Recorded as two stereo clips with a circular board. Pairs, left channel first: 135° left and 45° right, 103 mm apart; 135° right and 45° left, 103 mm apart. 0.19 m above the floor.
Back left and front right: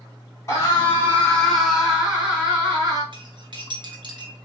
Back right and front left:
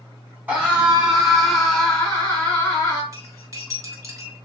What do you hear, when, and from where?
0.5 s a scream: 110° left, 1.5 m; by 3.0 s 85° right, 1.6 m
3.1 s cutlery clinking: 10° right, 1.3 m